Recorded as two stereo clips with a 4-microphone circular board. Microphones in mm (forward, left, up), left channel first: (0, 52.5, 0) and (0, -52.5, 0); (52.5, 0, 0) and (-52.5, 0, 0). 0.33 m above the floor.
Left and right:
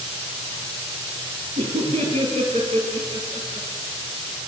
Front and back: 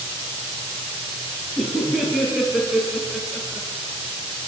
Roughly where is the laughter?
Right.